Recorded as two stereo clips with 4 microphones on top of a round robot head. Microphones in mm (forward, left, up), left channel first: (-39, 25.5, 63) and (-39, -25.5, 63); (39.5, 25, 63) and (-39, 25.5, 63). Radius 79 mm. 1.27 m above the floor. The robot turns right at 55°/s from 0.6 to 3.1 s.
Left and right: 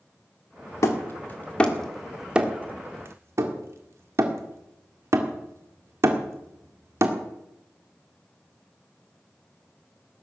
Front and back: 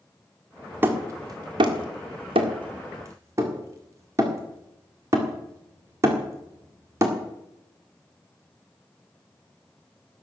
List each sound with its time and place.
0.8 s hammering: 115° left, 1.9 m; by 7.2 s 120° right, 1.9 m